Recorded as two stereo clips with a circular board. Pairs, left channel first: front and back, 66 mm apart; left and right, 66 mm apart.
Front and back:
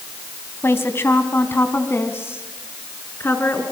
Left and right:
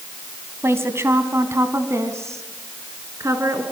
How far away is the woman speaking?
About 2 m.